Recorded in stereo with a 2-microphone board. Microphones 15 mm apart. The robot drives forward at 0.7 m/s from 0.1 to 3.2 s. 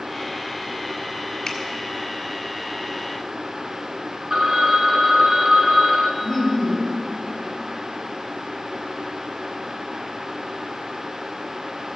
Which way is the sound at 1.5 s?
40° left (ahead or behind).